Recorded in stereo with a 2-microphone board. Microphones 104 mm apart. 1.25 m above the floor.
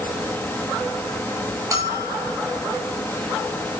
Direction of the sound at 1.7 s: 30° right (ahead or behind).